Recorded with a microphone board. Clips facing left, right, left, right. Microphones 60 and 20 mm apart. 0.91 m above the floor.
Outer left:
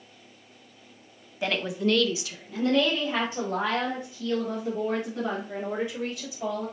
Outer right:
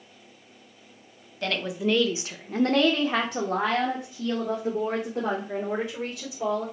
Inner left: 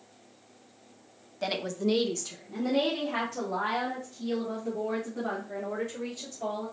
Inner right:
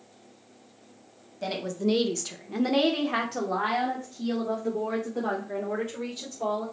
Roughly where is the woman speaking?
Centre.